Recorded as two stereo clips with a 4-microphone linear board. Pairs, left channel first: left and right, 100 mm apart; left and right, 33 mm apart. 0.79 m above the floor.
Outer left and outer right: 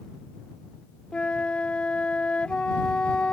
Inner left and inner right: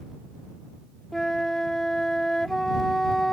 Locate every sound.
1.1 s a flute: 10° left (ahead or behind)